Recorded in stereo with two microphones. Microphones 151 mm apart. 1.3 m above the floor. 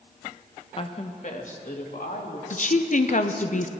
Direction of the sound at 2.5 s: 55° left (ahead or behind).